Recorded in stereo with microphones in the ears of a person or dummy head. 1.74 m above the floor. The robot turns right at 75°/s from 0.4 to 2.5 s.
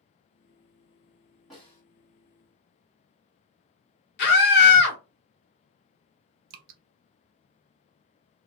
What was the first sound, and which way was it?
A snare drum, centre (ahead or behind).